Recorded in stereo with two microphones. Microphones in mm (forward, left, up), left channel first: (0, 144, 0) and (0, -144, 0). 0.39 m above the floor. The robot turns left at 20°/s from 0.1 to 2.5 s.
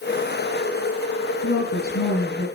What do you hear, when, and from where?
1.4 s a woman speaking: 55° left (ahead or behind), 4 m; by 2.5 s 35° left (ahead or behind), 4 m